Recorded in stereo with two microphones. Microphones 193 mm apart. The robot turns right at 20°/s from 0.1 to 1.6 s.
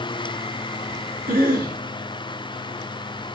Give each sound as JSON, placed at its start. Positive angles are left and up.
{"t": 1.3, "sound": "a cough", "side_deg": -45, "distance_m": 3.0}